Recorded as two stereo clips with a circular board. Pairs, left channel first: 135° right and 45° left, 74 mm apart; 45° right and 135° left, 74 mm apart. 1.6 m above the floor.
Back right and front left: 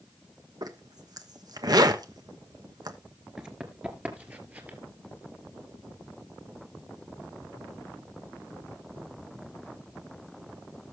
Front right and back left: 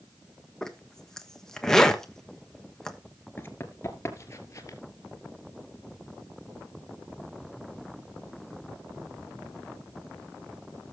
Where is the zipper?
35° left, 1.2 m.